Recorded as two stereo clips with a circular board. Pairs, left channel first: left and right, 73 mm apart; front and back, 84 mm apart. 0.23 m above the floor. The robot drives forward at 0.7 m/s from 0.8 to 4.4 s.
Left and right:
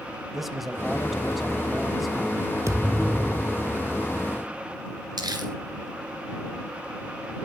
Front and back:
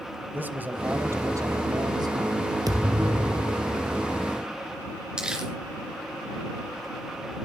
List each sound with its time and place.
0.3 s a man speaking: 175° right, 0.9 m; by 3.7 s straight behind, 2.5 m
2.7 s a thud: 140° right, 1.4 m; by 4.0 s 155° right, 2 m
5.2 s crumpling: 100° right, 3 m